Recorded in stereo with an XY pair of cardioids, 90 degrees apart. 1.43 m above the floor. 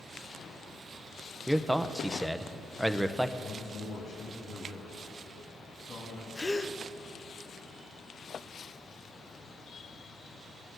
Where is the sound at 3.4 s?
65° left, 3 m.